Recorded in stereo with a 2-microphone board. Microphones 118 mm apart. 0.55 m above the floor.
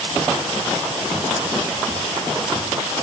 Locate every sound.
Only background noise.